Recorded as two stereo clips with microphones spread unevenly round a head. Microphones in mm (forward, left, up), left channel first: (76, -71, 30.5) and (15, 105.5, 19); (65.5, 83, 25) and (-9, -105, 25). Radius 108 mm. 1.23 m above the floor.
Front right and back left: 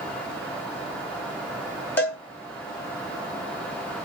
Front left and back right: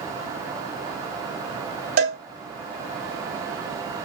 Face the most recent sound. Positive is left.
turn(degrees=-150)